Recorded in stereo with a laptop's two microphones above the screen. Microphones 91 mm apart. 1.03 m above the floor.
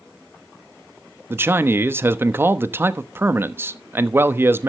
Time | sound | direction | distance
1.3 | a man speaking | 25° right (ahead or behind) | 1.1 m